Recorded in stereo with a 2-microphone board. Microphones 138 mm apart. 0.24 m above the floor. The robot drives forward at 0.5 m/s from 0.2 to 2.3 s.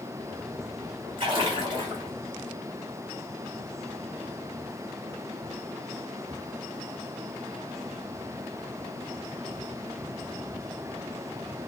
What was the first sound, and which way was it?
A splash, 35° right (ahead or behind).